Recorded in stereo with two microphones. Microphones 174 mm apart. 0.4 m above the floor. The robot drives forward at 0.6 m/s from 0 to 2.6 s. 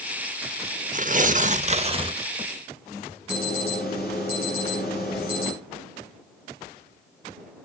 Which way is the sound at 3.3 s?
65° left (ahead or behind).